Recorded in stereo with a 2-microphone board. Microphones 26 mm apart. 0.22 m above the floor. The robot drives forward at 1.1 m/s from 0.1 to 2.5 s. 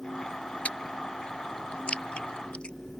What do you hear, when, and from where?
0.7 s chewing: 55° left (ahead or behind); by 2.8 s 40° left (ahead or behind)